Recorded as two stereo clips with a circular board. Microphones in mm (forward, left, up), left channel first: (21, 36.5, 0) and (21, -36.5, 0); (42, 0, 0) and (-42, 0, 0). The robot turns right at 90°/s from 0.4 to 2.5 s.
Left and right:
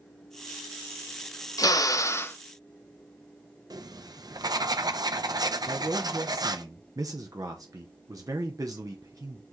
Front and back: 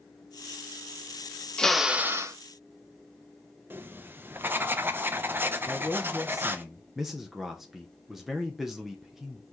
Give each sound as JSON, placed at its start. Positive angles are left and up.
{"t": 1.6, "sound": "a drill", "azimuth_deg": 75, "distance_m": 0.7}
{"t": 3.7, "sound": "writing", "azimuth_deg": -115, "distance_m": 0.7}
{"t": 5.7, "sound": "a man speaking", "azimuth_deg": -95, "distance_m": 0.9}